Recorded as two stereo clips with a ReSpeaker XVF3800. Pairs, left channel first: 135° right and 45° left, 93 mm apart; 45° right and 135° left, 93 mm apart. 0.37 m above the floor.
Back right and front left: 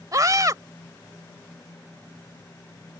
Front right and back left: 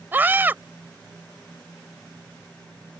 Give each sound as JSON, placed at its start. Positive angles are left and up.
{"t": 0.1, "sound": "a scream", "azimuth_deg": 75}